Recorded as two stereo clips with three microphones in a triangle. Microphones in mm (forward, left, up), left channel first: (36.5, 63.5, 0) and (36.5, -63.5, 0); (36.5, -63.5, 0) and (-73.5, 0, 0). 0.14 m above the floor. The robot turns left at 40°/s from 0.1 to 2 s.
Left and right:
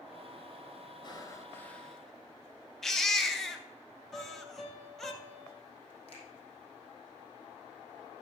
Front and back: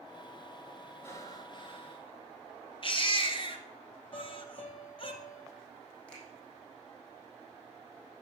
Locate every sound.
1.0 s breathing: 40° left, 1.3 m; by 2.1 s straight ahead, 1.3 m
2.8 s a baby crying: 5° left, 1.3 m
4.1 s a piano: straight ahead, 3 m
6.1 s a finger snap: 50° left, 5.5 m